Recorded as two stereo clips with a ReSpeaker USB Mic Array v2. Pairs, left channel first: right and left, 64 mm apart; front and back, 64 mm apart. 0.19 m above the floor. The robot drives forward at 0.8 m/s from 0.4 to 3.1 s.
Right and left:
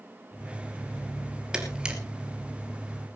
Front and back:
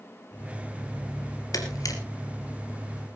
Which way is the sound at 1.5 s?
10° left.